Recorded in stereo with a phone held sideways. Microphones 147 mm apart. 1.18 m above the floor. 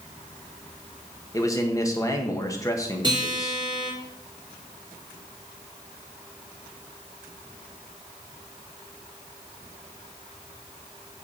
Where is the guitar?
30° right (ahead or behind), 4.5 m.